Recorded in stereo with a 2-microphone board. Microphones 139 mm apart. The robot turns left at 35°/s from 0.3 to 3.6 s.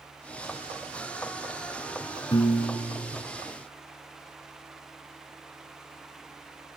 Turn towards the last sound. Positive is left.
turn(degrees=70)